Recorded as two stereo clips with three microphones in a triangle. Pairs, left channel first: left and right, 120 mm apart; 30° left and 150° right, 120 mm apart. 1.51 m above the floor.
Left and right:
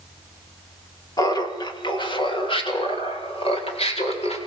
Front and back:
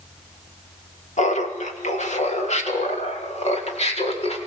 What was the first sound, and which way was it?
Laughter, 35° left.